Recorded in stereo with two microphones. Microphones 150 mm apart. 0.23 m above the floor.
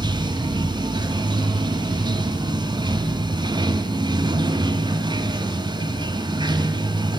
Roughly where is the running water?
Right.